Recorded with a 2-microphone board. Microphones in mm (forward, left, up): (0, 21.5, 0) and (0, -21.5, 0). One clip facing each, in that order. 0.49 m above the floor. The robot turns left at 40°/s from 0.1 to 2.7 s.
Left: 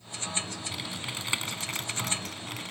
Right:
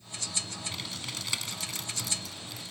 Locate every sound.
0.7 s typing on a keyboard: 170° left, 0.5 m; by 2.7 s 90° left, 0.5 m